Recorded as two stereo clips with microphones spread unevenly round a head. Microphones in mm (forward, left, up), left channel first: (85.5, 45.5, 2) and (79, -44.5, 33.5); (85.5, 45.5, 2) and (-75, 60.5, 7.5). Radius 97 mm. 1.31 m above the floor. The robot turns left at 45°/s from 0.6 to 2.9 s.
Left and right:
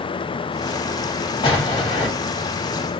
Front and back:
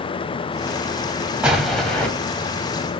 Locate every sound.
1.4 s an explosion: 100° left, 1.3 m; by 2.1 s 70° left, 1.3 m